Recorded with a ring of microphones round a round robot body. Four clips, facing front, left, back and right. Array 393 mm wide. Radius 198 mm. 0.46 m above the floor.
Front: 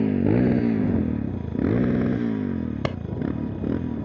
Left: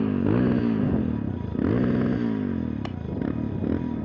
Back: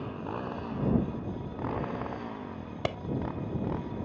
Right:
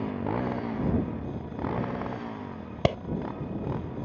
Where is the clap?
65° right.